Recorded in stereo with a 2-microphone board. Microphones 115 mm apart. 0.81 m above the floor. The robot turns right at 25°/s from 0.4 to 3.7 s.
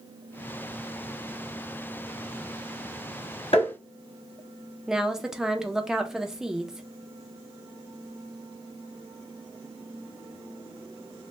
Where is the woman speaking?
5° right (ahead or behind), 0.5 m.